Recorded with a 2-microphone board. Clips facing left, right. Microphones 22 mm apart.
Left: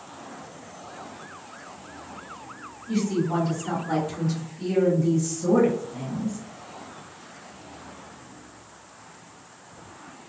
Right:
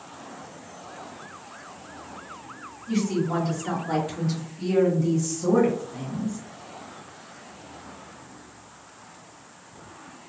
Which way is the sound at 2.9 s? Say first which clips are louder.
Even; 20° right (ahead or behind).